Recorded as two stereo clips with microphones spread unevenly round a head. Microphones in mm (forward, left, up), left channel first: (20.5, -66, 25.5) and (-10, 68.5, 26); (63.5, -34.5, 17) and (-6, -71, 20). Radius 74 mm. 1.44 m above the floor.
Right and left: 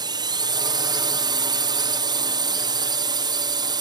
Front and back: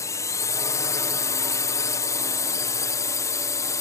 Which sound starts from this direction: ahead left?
A drone, at 0.0 s.